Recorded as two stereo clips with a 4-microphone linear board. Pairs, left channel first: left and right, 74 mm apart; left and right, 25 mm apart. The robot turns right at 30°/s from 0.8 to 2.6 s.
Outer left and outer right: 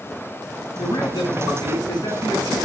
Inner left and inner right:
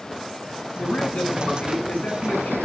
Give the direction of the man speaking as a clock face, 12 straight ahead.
10 o'clock.